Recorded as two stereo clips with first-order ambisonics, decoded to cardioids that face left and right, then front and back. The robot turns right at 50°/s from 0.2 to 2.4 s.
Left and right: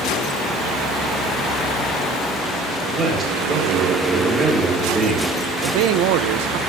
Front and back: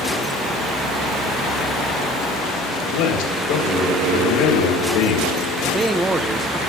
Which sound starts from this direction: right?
A man speaking, at 5.6 s.